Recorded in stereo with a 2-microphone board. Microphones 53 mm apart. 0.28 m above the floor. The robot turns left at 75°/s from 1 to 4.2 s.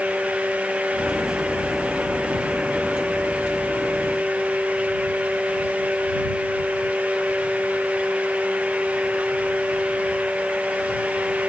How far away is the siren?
I don't hear a siren.